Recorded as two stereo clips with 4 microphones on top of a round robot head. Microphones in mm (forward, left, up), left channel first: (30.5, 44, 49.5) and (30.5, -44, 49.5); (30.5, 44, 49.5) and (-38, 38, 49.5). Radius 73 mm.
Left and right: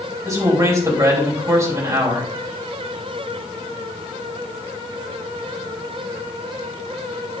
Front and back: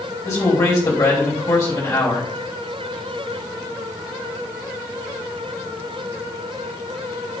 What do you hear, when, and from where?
0.2 s a man speaking: 40° right, 3.5 m